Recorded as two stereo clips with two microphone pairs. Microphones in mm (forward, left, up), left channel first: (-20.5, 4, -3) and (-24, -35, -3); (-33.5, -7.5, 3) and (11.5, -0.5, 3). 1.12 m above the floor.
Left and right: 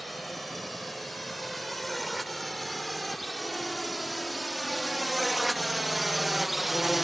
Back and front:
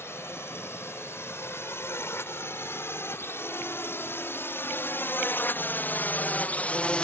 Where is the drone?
175° left; by 7.0 s 175° right.